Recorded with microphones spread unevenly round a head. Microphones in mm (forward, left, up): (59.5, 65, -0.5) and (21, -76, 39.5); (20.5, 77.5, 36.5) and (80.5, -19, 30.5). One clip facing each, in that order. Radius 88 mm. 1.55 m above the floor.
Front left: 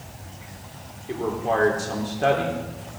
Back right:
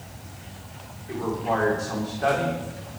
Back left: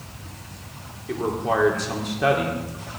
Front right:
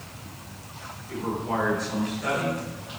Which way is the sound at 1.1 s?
140° left.